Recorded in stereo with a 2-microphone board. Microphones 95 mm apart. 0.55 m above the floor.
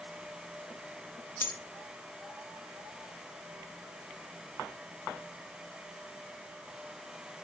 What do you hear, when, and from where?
1.4 s a dropped coin: 20° left (ahead or behind), 0.5 m